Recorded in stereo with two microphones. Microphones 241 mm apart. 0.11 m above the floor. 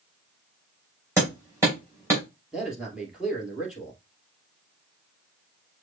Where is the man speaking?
5° right (ahead or behind), 2 m.